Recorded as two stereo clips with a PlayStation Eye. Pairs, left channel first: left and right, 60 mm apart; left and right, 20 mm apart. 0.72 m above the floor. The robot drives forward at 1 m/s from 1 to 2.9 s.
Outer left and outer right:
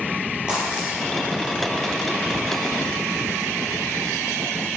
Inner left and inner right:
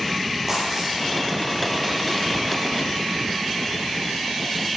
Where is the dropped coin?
15° right (ahead or behind), 6.5 m.